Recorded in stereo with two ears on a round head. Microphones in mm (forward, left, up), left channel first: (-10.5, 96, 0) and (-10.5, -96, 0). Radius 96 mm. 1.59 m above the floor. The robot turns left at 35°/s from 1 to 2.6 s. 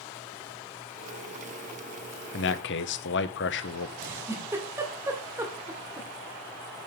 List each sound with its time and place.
2.3 s a man speaking: 60° left (ahead or behind), 0.8 m; by 3.9 s 55° left (ahead or behind), 0.8 m
4.0 s a giggle: 15° right (ahead or behind), 2 m